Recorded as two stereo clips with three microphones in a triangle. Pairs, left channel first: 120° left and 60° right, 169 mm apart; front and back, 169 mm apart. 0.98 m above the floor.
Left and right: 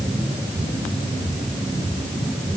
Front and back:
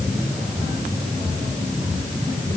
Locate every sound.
Only background noise.